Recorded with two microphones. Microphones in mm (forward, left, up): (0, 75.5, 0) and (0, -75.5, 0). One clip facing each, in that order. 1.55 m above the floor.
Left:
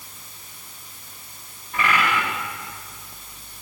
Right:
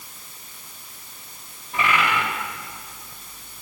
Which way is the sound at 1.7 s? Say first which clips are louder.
Even; 25° right (ahead or behind).